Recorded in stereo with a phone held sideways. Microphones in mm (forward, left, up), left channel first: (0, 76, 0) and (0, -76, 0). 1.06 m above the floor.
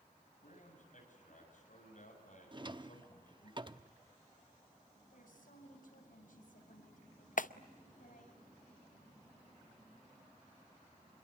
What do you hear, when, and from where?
0.4 s a man speaking: 60° left (ahead or behind), 8.5 m
2.5 s a drawer: 35° right (ahead or behind), 0.8 m
5.1 s a woman speaking: 70° left (ahead or behind), 7 m
7.4 s a clap: 65° left (ahead or behind), 0.6 m